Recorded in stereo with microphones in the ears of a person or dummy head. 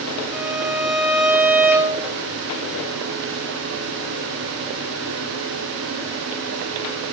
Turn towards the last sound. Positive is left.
turn(degrees=-5)  # may be behind; listen again after turning